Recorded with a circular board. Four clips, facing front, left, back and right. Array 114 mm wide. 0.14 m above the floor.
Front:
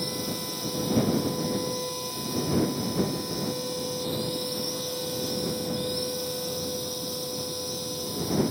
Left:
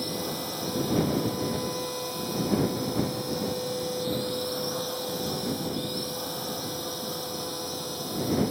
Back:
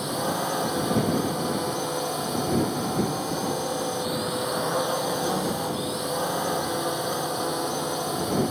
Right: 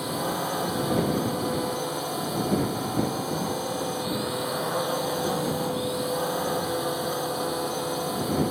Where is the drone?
150° right.